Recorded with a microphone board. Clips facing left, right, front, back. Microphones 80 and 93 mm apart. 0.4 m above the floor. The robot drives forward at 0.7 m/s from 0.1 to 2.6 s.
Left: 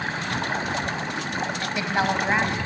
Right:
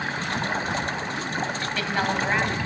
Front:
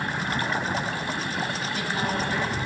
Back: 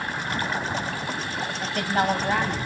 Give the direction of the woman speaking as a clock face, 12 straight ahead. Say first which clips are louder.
Left 4 dB, back 4 dB; 7 o'clock.